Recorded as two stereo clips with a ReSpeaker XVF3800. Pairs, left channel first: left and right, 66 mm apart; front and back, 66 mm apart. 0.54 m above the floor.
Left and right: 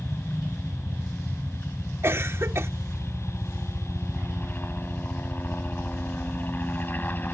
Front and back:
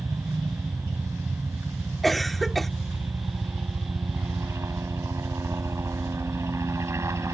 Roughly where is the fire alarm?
No fire alarm in this recording.